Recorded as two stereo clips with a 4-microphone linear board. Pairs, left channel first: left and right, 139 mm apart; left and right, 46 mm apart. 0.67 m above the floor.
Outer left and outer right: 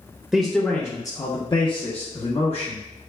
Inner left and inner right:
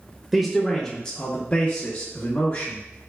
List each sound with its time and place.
0.3 s a man speaking: centre (ahead or behind), 0.7 m; by 2.8 s 45° left (ahead or behind), 1.4 m